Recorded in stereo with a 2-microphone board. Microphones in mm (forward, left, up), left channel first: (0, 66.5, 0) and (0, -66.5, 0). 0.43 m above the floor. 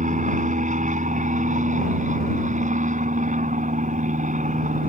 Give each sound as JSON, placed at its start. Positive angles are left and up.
{"t": 0.0, "sound": "an aircraft", "side_deg": -70}